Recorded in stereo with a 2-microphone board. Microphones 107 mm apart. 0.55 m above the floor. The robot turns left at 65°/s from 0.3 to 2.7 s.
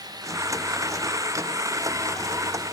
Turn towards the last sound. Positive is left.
No sound to turn to.